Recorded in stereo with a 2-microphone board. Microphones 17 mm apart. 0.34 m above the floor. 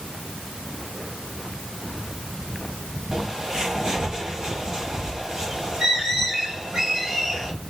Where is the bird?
50° right (ahead or behind), 2 m.